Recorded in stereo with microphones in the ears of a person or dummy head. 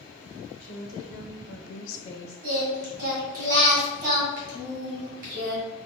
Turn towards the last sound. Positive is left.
turn(degrees=-50)  # may be behind; listen again after turning